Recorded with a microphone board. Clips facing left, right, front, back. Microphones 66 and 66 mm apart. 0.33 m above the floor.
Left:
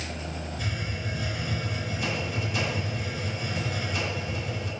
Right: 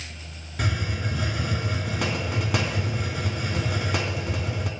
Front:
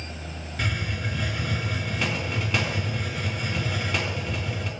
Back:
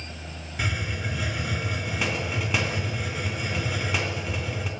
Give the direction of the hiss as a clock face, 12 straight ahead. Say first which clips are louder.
Right 9 dB, even; 3 o'clock.